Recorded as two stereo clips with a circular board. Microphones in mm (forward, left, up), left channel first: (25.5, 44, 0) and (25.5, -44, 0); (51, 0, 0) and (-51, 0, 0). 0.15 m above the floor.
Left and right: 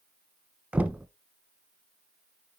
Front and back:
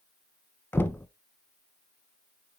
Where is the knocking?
35° right, 0.9 m.